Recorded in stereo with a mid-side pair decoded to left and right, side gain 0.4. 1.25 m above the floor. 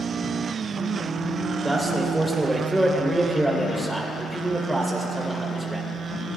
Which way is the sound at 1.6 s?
10° right.